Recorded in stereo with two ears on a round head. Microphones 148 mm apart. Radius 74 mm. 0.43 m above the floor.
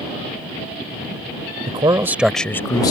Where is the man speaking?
35° right (ahead or behind); by 2.9 s 25° left (ahead or behind).